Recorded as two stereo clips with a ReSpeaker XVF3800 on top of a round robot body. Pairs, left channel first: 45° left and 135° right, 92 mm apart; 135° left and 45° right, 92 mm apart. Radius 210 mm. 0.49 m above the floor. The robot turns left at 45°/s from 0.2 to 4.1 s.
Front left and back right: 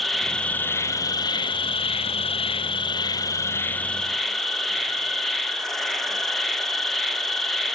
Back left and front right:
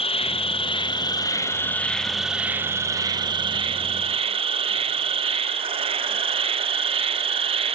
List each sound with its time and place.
0.0 s an insect: 135° left, 0.9 m; by 7.8 s 40° right, 0.9 m